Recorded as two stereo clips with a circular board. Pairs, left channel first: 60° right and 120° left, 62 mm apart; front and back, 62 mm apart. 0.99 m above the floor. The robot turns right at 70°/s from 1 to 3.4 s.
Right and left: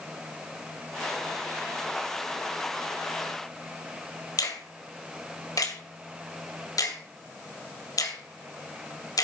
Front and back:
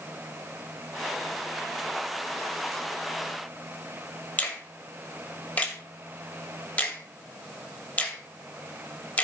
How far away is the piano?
I don't hear a piano.